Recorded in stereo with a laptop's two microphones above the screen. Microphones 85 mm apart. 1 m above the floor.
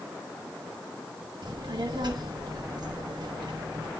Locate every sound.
1.4 s a child speaking: 60° right (ahead or behind), 0.9 m